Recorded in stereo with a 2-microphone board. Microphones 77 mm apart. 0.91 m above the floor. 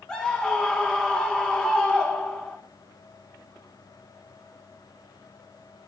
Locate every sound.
0.1 s a scream: 10° left (ahead or behind), 1.5 m